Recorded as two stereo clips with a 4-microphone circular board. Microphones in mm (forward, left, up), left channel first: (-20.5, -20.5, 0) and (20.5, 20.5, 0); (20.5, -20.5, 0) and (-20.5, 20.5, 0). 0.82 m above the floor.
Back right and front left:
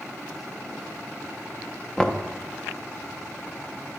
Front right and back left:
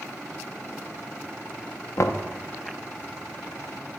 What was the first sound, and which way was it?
Knocking, 60° right.